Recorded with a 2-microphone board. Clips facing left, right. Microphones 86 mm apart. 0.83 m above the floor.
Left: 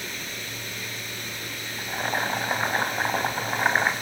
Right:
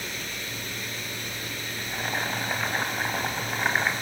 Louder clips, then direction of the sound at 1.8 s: Left 4 dB; 25° left (ahead or behind).